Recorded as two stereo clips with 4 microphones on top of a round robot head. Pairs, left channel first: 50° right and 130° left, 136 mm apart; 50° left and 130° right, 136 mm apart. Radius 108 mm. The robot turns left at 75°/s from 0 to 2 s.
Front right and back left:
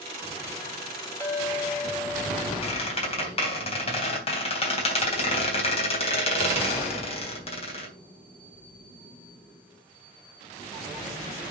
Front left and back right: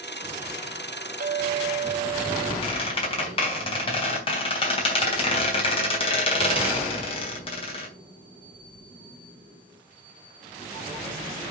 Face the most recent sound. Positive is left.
turn(degrees=0)